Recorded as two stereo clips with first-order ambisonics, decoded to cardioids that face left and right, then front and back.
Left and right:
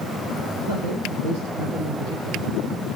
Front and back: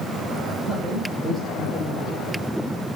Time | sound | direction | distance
0.7 | a man speaking | 80° right | 6.5 m